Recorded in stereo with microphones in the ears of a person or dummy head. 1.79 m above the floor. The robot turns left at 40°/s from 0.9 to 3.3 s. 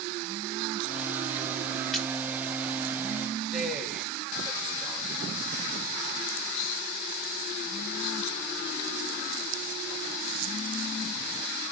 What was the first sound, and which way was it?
A splash, centre (ahead or behind).